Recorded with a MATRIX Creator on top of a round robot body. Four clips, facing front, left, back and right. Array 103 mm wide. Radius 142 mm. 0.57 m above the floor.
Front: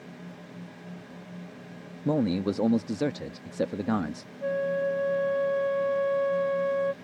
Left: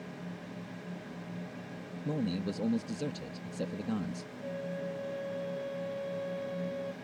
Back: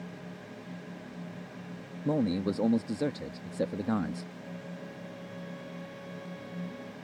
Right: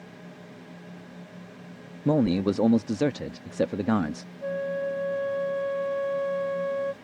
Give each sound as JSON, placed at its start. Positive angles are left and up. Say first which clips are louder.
{"t": 2.0, "sound": "a man speaking", "louder": "right 12 dB, front 3 dB", "azimuth_deg": -75}
{"t": 4.4, "sound": "a flute", "louder": "right 10 dB, front 16 dB", "azimuth_deg": -30}